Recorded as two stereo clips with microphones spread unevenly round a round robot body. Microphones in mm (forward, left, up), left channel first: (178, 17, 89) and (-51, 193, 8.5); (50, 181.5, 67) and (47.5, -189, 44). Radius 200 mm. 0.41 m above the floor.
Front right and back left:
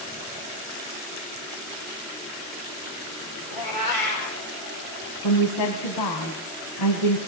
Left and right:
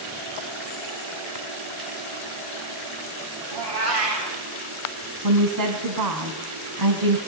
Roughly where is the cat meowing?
Ahead right.